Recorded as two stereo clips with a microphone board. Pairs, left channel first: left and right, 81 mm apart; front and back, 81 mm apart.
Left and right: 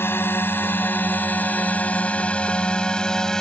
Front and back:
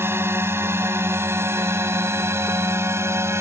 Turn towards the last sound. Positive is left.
turn(degrees=165)